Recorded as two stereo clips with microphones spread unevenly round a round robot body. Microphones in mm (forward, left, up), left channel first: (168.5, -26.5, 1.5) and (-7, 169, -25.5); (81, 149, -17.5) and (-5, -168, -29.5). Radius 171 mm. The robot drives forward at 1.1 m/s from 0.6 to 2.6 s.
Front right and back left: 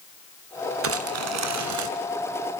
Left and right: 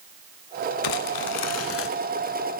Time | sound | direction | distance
0.8 | crumpling | 100° left | 1.8 m